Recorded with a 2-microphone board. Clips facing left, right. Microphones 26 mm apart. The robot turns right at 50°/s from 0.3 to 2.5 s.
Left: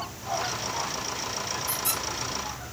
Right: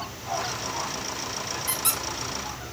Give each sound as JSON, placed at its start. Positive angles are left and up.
{"t": 1.7, "sound": "a squeak", "side_deg": -70, "distance_m": 1.0}